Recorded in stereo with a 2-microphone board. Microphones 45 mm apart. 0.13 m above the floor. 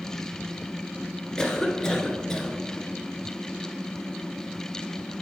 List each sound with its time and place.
1.4 s a cough: 15° left (ahead or behind), 1.6 m